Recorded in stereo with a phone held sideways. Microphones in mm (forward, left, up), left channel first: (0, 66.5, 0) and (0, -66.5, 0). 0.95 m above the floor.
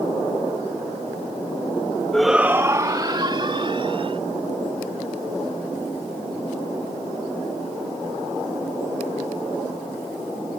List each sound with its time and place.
2.1 s a shout: 5° left (ahead or behind); by 4.2 s 45° right (ahead or behind)